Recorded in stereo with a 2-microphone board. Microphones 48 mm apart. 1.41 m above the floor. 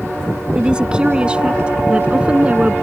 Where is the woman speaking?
20° right (ahead or behind); by 2.7 s 25° right (ahead or behind).